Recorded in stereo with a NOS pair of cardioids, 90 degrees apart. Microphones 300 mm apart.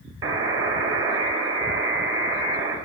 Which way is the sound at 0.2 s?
45° right.